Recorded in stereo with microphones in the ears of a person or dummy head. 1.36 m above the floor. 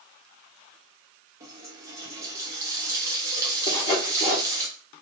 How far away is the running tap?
About 0.8 m.